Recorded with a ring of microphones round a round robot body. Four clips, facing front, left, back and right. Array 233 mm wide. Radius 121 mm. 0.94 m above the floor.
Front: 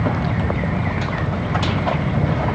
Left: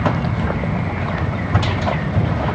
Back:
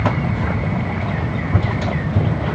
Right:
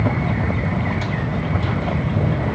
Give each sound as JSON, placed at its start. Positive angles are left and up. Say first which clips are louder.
{"t": 1.2, "sound": "running footsteps", "louder": "left 2 dB, even", "azimuth_deg": 175, "distance_m": 7.5}